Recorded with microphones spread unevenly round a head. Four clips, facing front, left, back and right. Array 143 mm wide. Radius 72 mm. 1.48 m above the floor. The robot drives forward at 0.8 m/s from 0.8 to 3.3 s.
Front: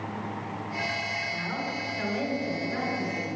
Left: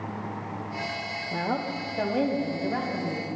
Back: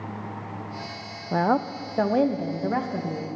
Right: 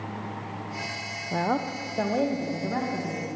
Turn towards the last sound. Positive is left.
turn(degrees=-175)